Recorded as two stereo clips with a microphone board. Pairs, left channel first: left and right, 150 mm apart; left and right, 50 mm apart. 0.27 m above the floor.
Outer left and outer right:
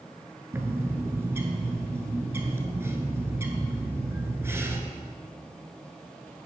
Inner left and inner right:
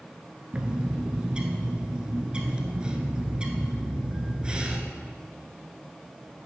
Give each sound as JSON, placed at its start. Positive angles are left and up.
{"t": 0.5, "sound": "a bird", "side_deg": -20, "distance_m": 0.8}